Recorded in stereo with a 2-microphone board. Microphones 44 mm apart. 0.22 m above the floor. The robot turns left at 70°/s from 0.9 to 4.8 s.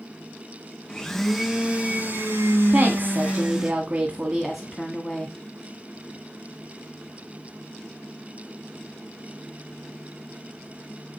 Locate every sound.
0.9 s a blender: 25° left, 2.5 m; by 3.7 s 170° right, 2.5 m
2.7 s a woman speaking: 45° right, 1.7 m; by 5.3 s 165° left, 1.7 m